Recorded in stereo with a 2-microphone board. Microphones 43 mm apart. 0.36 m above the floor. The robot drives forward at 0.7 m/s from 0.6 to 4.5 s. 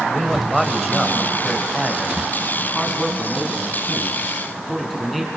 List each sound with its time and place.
0.1 s a man speaking: centre (ahead or behind), 1.8 m